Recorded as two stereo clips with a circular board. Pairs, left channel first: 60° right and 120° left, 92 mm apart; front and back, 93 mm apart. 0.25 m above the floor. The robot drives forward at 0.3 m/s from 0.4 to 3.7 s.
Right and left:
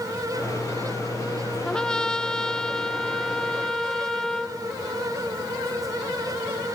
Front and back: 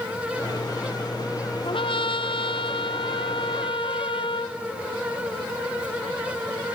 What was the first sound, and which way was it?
A trumpet, 20° left.